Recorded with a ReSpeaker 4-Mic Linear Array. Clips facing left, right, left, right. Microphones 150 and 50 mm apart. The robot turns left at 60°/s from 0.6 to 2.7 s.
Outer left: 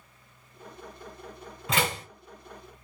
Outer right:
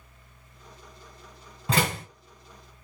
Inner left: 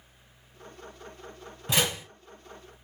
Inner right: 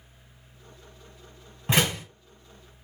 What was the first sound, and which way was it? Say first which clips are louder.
A door slam: outer right 2 dB, inner right 3 dB; 35° right (ahead or behind).